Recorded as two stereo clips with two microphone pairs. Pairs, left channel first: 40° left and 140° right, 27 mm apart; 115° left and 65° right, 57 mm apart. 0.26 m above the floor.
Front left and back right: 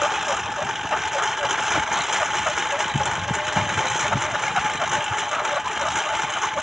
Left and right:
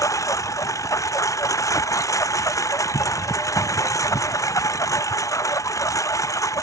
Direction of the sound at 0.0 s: 140° left.